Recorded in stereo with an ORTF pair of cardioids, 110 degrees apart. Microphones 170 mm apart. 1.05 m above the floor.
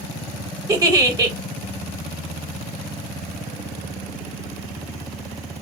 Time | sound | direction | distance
0.7 | a giggle | 20° right | 0.8 m